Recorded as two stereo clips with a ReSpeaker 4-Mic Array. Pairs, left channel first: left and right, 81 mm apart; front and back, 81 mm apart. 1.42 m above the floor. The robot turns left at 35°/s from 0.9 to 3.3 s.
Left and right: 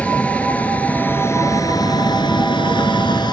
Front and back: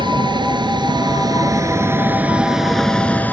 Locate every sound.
0.0 s a vehicle: 165° left; by 3.3 s 70° left